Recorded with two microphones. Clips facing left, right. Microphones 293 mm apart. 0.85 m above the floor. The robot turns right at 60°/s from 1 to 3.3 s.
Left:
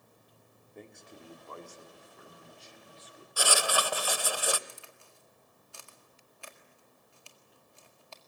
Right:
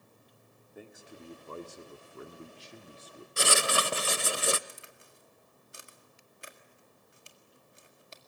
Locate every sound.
0.8 s a man speaking: 175° right, 1.6 m; by 3.3 s 40° right, 1.6 m
3.4 s writing: 25° right (ahead or behind), 0.7 m
4.7 s a crack: 20° right (ahead or behind), 1.8 m